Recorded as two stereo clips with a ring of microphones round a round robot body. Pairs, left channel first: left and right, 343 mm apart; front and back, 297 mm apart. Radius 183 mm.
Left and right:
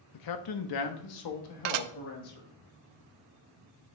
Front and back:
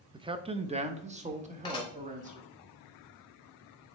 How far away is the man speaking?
About 0.7 m.